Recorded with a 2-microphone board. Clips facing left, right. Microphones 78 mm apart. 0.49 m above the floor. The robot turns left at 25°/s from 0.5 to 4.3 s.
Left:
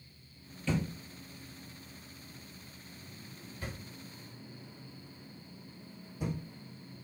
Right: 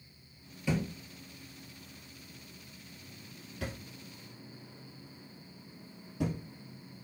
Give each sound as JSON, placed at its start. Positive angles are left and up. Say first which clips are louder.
{"t": 0.7, "sound": "a thud", "louder": "right 1 dB", "side_deg": -10, "distance_m": 1.7}